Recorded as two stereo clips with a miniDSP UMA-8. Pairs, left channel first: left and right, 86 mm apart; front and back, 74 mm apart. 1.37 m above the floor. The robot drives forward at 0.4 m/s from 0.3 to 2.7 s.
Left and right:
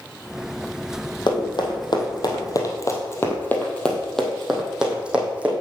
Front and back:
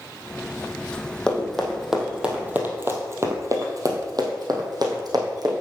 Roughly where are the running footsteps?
Left.